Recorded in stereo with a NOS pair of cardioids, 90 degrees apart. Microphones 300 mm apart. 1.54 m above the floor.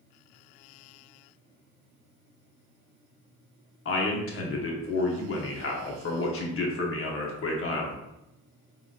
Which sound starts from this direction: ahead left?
A man speaking, at 3.9 s.